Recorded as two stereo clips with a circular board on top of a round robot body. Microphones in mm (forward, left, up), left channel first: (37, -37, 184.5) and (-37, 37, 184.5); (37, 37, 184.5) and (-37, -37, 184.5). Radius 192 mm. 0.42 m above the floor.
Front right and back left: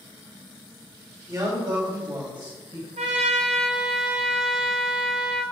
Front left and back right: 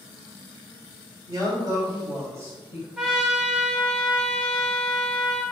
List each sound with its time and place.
1.3 s a man speaking: straight behind, 3 m; by 2.9 s 160° left, 3.5 m
3.0 s a trumpet: 140° left, 0.6 m